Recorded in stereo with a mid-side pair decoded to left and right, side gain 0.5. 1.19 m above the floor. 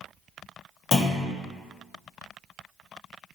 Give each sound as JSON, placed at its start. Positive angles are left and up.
{"t": 0.9, "sound": "a clunk", "azimuth_deg": 50, "distance_m": 1.3}